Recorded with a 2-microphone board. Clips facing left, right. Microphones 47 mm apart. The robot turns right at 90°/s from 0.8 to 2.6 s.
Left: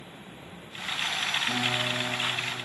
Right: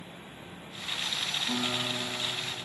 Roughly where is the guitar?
Ahead left.